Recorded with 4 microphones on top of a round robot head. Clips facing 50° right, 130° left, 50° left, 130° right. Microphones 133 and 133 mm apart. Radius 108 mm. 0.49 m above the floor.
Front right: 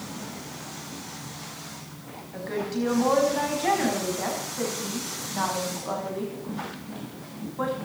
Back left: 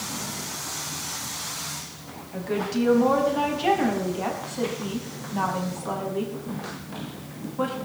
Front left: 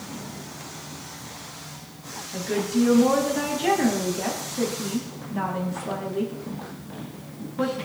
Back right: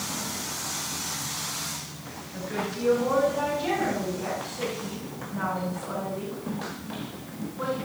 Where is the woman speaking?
55° left, 5.5 m.